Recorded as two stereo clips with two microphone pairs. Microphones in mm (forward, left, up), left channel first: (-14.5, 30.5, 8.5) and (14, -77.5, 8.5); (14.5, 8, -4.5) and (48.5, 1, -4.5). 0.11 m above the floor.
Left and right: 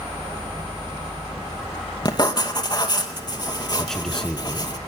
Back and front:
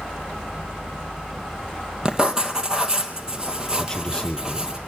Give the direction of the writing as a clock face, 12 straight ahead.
10 o'clock.